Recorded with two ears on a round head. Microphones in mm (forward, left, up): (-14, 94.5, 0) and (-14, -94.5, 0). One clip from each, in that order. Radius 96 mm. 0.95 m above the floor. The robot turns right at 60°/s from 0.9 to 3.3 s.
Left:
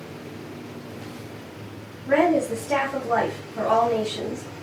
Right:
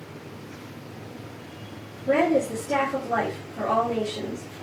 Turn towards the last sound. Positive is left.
turn(degrees=65)